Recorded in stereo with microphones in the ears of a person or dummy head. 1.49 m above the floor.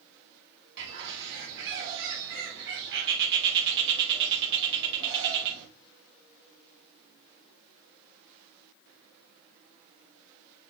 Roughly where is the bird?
Right.